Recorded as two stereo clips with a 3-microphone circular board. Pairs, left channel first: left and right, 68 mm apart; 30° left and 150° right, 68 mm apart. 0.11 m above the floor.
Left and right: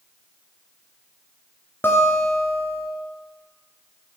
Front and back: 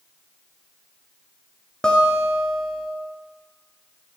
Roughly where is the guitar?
Left.